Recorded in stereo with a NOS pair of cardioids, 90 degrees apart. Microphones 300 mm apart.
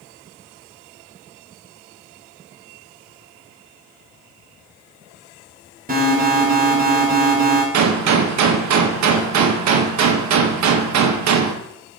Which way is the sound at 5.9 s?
30° right.